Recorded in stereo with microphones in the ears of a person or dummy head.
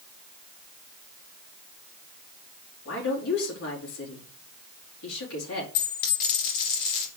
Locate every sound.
2.9 s a woman speaking: 70° left (ahead or behind), 4 m
5.8 s a dropped coin: 55° left (ahead or behind), 3.5 m